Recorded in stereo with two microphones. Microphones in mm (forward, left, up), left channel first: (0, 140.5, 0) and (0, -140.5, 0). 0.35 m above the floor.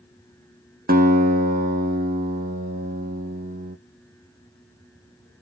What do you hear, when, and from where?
0.9 s a guitar: 35° right (ahead or behind), 0.6 m